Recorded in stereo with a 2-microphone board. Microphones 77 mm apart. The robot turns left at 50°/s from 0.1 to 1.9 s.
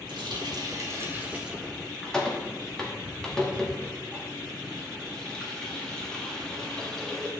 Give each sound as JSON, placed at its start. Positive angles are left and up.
{"t": 0.1, "sound": "a running tap", "side_deg": -80, "distance_m": 1.1}